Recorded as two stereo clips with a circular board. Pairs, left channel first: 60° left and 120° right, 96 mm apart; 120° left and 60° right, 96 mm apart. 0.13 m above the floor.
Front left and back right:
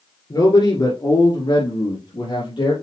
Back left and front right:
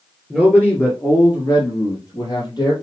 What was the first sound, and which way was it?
A man speaking, 45° left.